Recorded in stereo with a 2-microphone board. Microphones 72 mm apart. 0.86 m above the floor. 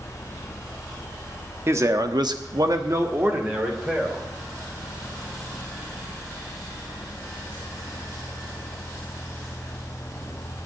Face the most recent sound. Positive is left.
turn(degrees=-15)  # may be behind; listen again after turning